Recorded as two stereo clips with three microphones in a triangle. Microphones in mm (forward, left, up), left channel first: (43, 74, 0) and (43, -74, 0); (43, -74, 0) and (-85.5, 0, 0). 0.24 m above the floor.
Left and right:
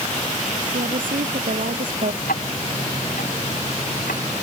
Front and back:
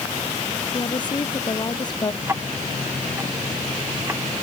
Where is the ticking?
80° left.